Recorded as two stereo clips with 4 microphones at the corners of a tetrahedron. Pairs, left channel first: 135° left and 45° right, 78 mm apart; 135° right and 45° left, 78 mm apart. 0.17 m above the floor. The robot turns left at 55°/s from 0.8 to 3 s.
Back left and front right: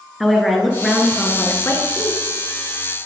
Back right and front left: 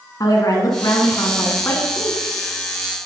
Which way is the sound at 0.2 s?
135° right.